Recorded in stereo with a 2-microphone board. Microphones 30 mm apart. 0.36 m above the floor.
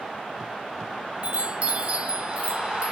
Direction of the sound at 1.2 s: 40° right (ahead or behind).